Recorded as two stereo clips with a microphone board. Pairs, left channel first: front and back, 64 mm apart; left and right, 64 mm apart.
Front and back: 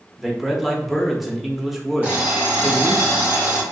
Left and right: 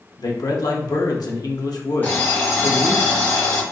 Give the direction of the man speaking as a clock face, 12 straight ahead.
9 o'clock.